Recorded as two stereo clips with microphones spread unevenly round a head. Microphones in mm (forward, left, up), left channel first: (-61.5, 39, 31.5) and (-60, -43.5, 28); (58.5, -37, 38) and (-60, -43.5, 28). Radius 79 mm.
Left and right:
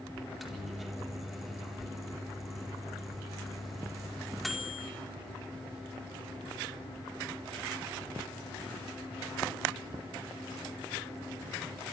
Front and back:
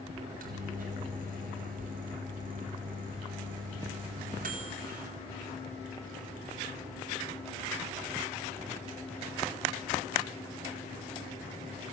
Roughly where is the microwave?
Behind.